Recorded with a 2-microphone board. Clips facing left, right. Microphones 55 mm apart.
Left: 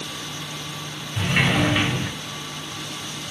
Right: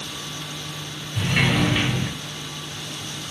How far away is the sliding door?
About 1.3 m.